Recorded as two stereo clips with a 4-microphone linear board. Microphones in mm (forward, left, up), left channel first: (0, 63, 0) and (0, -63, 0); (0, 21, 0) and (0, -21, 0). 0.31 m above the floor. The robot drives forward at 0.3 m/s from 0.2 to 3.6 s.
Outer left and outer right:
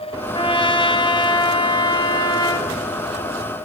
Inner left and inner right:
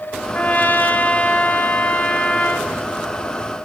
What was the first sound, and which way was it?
A trumpet, 45° left (ahead or behind).